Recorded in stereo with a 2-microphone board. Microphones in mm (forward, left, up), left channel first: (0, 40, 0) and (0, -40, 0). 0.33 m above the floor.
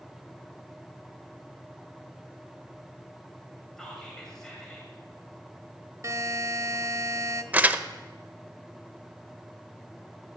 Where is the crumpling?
20° right (ahead or behind), 0.6 m.